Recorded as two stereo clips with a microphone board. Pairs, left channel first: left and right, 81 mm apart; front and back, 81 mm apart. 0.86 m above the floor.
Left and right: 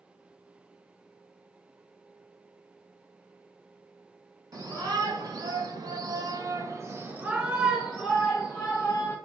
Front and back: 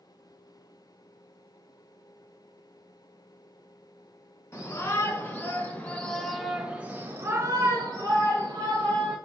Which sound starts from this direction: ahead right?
A shout, at 4.5 s.